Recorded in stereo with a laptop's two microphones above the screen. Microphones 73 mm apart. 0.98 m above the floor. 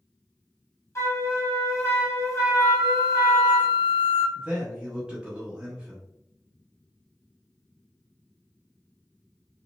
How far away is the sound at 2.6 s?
About 0.6 m.